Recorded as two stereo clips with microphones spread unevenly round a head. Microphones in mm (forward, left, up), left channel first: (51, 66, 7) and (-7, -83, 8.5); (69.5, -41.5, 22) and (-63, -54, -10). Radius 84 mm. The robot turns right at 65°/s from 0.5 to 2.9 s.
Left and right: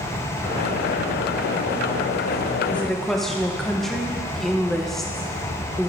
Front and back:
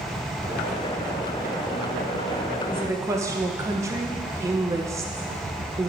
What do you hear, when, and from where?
2.7 s a woman speaking: 140° left, 0.9 m; by 5.9 s 155° left, 0.9 m